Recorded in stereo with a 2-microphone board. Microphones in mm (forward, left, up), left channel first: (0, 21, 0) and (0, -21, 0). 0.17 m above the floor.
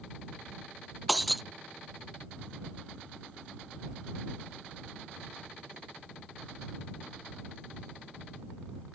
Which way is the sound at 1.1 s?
5° right (ahead or behind).